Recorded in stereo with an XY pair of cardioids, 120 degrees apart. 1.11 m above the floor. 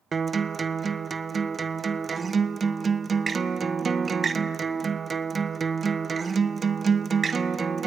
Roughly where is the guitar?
Ahead right.